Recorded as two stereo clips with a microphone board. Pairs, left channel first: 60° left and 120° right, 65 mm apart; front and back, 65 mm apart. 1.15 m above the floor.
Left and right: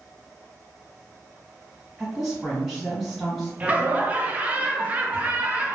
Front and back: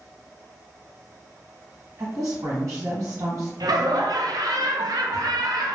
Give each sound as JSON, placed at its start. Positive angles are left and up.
{"t": 2.0, "sound": "a woman speaking", "azimuth_deg": 150, "distance_m": 1.3}
{"t": 3.6, "sound": "laughter", "azimuth_deg": 170, "distance_m": 0.5}